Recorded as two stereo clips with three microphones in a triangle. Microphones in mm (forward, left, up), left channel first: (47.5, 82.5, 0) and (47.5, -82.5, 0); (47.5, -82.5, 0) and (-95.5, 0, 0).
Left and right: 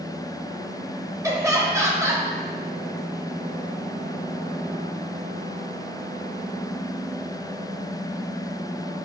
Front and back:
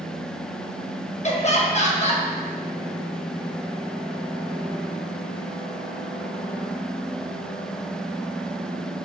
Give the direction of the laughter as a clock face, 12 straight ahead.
1 o'clock.